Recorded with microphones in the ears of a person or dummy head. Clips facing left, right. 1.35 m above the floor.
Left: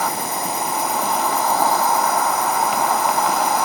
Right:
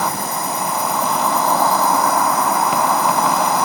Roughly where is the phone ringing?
No phone ringing in this recording.